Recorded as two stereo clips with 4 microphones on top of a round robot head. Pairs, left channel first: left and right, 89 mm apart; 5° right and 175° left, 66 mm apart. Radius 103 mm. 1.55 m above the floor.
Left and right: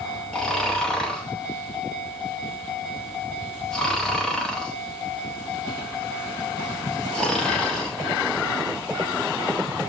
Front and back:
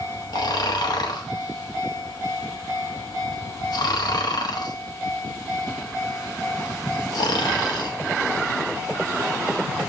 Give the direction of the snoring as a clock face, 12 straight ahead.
12 o'clock.